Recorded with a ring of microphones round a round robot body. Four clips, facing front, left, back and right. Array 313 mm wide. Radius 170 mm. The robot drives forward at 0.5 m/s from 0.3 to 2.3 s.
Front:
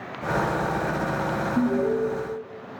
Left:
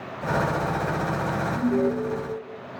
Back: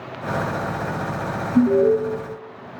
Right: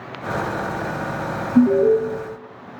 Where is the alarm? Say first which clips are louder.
Right 11 dB, back 9 dB; 115° right, 5.5 m; by 2.0 s 120° right, 5.5 m.